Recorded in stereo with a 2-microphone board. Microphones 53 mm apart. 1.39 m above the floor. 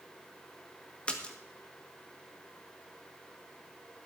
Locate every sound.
1.1 s a splash: 20° left (ahead or behind), 1.7 m